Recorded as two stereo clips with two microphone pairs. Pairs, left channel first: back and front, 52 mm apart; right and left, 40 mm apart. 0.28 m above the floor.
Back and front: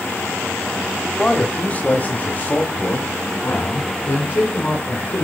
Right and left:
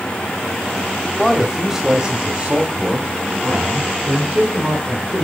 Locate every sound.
1.2 s a man speaking: 170° right, 0.9 m; by 5.2 s 130° left, 2.5 m